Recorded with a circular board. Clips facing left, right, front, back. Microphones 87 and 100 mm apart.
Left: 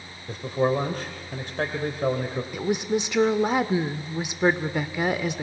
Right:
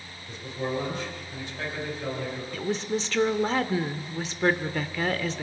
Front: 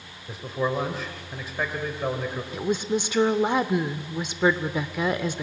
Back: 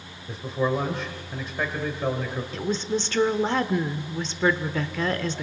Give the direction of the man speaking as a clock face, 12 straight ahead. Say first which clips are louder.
Left 8 dB, back 2 dB; 9 o'clock.